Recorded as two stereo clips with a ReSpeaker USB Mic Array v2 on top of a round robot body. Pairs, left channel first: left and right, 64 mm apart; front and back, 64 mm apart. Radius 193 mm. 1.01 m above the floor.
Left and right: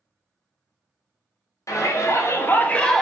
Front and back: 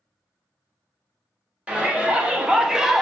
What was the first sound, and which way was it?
A shout, 110° left.